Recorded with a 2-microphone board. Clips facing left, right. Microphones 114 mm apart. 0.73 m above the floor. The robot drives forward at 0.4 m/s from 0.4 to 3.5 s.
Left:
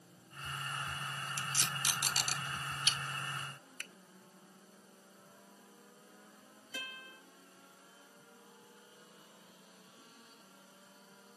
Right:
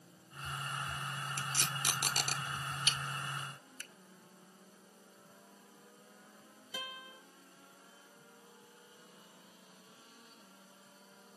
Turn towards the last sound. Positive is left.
turn(degrees=-10)  # may be behind; listen again after turning